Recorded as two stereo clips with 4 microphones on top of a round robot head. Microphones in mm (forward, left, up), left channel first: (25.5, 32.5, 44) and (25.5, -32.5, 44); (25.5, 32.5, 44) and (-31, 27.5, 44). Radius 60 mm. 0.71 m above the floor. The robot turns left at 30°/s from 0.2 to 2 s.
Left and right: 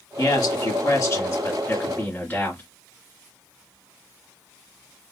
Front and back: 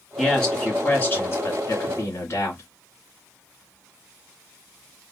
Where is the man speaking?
85° left, 2 m; by 2.6 s 35° left, 2 m.